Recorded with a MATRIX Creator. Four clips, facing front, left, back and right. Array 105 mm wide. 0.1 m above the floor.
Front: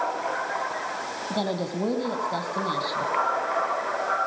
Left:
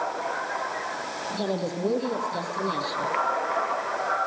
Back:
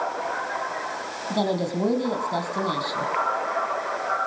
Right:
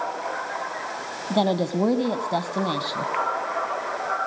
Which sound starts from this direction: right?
A woman speaking, at 1.3 s.